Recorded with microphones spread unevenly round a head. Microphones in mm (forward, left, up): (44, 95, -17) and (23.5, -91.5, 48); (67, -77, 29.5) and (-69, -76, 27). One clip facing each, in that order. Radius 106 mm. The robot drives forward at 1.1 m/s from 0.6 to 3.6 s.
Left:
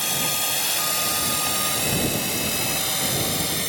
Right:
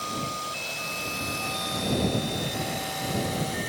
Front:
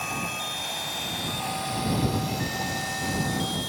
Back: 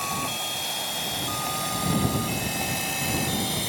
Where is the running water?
105° left; by 3.7 s 125° left.